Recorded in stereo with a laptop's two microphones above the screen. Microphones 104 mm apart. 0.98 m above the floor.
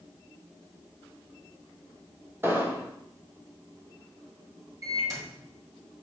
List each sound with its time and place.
2.4 s an explosion: 20° right (ahead or behind), 1.3 m
4.8 s a microwave: 35° right (ahead or behind), 3.5 m